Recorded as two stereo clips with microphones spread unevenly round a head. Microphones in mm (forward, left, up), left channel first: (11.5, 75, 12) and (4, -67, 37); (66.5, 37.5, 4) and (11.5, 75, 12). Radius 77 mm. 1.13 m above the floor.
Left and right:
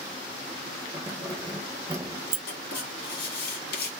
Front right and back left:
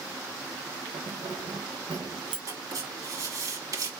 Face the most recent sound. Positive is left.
turn(degrees=110)